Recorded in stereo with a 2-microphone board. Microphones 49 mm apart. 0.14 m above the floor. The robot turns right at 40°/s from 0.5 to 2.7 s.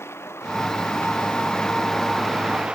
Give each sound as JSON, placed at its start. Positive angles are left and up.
{"t": 0.0, "sound": "a vehicle", "side_deg": 60}